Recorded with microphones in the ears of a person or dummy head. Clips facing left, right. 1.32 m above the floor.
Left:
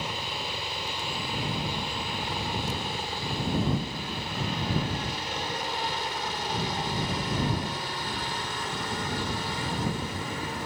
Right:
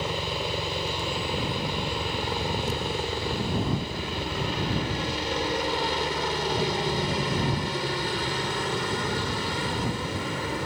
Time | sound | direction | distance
0.0 | a helicopter | 60° right (ahead or behind) | ?